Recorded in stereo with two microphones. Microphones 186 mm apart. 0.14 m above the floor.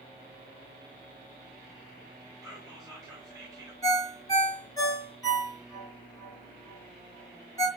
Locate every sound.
2.4 s whispering: 20° right (ahead or behind), 1.4 m
3.8 s a ringtone: 20° left (ahead or behind), 1.2 m